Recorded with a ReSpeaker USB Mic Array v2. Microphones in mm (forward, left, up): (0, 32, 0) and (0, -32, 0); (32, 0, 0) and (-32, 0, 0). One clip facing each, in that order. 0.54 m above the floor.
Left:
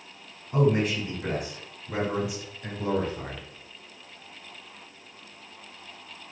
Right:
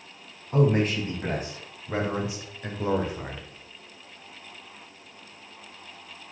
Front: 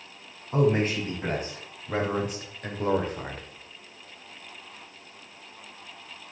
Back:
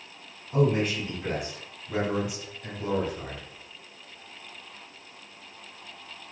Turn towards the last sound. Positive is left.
turn(degrees=-15)